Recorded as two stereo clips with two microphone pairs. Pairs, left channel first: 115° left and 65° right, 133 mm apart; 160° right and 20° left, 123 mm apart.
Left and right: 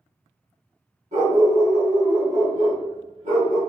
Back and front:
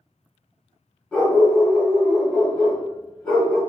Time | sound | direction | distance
1.1 | a dog barking | 75° right | 1.5 m